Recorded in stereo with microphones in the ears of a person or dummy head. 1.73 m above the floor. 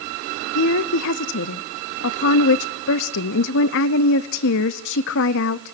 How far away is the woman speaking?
About 0.8 m.